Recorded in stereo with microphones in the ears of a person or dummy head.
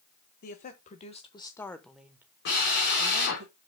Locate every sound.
0.4 s a woman speaking: 50° left (ahead or behind), 1.5 m; by 3.5 s 50° right (ahead or behind), 1.5 m
2.5 s a drill: 65° left (ahead or behind), 4.5 m